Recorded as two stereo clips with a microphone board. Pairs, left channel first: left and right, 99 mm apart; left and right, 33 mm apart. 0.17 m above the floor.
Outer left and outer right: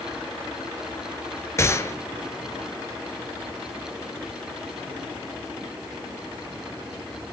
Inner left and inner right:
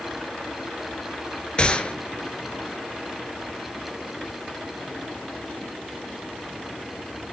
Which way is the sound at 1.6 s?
25° left (ahead or behind).